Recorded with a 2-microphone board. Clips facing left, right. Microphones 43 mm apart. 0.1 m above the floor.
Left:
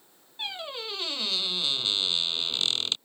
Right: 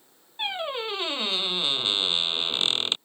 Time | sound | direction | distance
0.4 | a squeak | 30° right (ahead or behind) | ?